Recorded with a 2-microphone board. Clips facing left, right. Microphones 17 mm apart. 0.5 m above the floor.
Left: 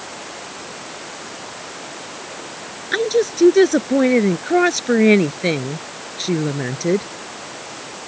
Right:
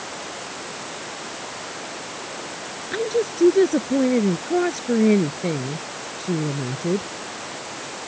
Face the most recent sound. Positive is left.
turn(degrees=50)  # may be behind; listen again after turning